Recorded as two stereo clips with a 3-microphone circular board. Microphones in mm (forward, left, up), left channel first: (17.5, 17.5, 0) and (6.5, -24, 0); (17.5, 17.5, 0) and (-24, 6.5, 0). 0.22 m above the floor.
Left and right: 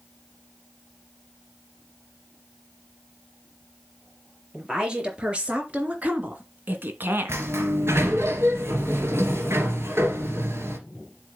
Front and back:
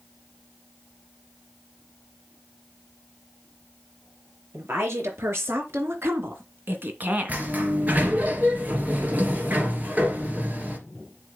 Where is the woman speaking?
175° right, 4.5 m; by 7.5 s 105° right, 2 m.